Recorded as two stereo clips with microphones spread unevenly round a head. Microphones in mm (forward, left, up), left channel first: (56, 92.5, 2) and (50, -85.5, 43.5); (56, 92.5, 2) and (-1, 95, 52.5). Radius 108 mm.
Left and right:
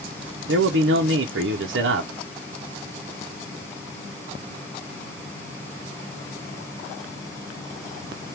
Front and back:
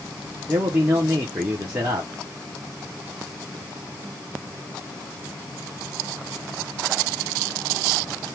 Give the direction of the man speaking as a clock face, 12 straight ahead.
4 o'clock.